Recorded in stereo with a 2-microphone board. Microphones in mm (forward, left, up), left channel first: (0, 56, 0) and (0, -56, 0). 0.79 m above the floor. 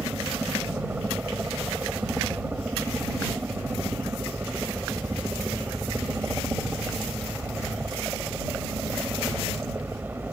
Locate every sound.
0.0 s a helicopter: 15° right (ahead or behind)